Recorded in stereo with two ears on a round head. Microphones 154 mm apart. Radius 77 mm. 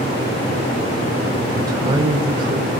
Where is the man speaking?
20° right (ahead or behind), 3 m; by 2.7 s 30° right (ahead or behind), 3.5 m.